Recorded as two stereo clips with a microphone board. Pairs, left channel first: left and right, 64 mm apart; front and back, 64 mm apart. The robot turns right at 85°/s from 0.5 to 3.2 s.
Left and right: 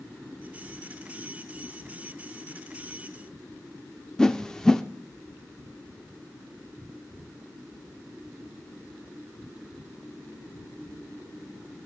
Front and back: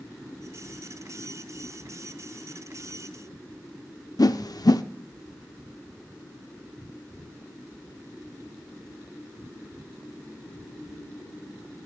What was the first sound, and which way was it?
A whoosh, 10° left.